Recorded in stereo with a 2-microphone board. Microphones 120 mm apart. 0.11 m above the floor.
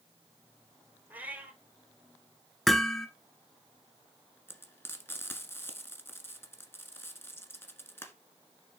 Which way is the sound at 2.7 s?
Centre (ahead or behind).